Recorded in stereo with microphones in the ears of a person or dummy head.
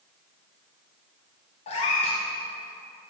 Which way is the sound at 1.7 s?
25° left (ahead or behind).